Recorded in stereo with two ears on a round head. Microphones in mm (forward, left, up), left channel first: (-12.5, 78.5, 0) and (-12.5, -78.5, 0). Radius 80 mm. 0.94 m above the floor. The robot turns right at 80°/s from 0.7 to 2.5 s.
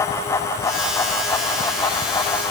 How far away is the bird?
I don't hear a bird.